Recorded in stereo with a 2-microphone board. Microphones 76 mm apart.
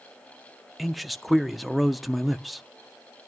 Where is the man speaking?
Centre (ahead or behind), 0.6 m.